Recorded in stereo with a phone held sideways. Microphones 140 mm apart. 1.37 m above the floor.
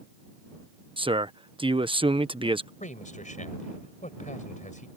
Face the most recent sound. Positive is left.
turn(degrees=60)  # may be behind; listen again after turning